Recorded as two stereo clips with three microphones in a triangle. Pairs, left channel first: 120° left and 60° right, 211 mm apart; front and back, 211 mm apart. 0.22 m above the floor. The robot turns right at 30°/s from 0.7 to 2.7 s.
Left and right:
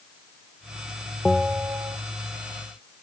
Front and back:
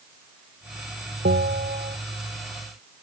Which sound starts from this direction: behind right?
A bell, at 1.2 s.